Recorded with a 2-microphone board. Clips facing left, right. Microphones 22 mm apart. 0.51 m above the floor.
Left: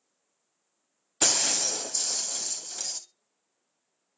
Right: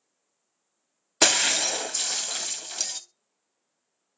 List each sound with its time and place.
1.2 s breaking glass: 45° right (ahead or behind), 0.6 m